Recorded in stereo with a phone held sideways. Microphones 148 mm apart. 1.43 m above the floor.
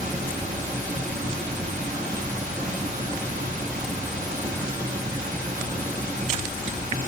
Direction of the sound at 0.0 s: 60° right (ahead or behind).